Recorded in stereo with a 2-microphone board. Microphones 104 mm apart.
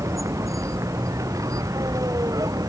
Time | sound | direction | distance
0.0 | a vehicle | 30° right (ahead or behind) | ?